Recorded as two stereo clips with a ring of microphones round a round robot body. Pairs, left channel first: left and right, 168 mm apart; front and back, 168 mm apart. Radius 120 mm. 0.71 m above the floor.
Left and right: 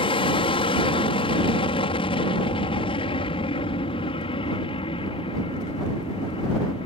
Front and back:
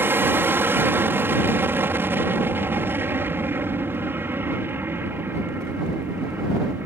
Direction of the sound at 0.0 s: 115° left.